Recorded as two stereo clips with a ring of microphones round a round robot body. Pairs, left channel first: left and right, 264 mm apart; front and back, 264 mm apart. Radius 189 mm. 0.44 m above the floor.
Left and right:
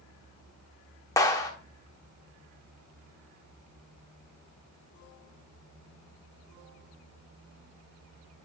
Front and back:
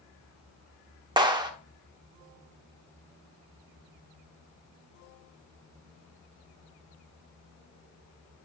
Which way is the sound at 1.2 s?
145° left.